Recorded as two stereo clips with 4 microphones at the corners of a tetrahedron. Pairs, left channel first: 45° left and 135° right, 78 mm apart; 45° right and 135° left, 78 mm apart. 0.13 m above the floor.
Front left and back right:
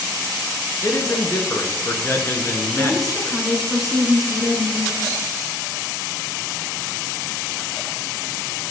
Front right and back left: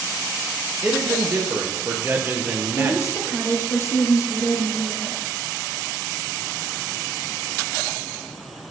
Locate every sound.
0.8 s a man speaking: 85° left, 1.5 m
2.8 s a woman speaking: 45° right, 1.8 m